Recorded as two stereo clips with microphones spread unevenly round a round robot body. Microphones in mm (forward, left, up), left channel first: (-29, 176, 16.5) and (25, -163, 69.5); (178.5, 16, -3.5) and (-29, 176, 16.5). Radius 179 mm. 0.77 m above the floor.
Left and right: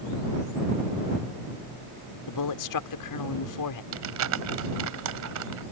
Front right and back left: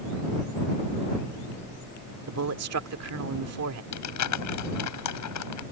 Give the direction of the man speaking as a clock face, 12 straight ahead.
8 o'clock.